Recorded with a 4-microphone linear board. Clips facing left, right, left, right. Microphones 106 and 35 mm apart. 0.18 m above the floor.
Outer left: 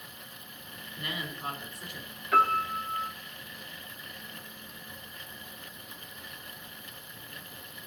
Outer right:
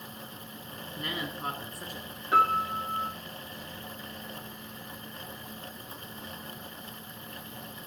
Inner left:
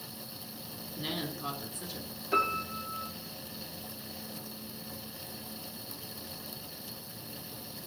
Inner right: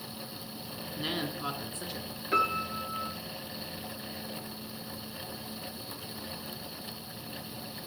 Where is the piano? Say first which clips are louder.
Even, inner right 1 dB; 25° right (ahead or behind), 2 m.